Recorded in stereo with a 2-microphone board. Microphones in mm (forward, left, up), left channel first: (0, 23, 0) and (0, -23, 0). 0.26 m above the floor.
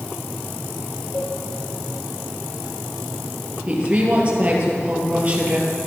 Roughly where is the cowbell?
Left.